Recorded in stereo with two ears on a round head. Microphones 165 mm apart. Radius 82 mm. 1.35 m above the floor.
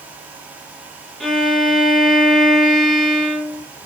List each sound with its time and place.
1.2 s a violin: centre (ahead or behind), 0.5 m